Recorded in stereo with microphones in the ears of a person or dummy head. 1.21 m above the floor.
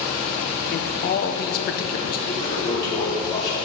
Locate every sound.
0.7 s a man speaking: 45° left (ahead or behind), 0.8 m
2.3 s a toilet flushing: 20° left (ahead or behind), 2.5 m